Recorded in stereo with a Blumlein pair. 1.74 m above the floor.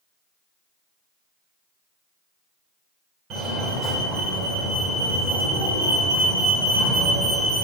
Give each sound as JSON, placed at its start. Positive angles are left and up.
{"t": 3.3, "sound": "a fire alarm", "azimuth_deg": -25, "distance_m": 2.5}